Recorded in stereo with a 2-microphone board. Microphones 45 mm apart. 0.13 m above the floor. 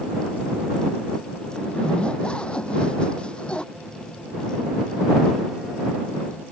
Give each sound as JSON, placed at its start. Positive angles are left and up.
{"t": 1.6, "sound": "a zipper", "side_deg": 25}
{"t": 3.7, "sound": "a phone buzzing", "side_deg": -10}